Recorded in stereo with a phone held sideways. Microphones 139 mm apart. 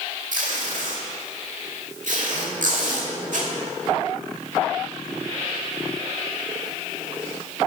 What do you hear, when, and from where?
0.3 s tape being pulled: 70° right (ahead or behind), 2 m